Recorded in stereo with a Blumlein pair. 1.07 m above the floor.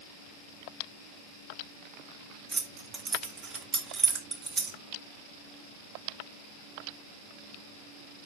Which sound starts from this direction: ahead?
Keys jangling, at 2.5 s.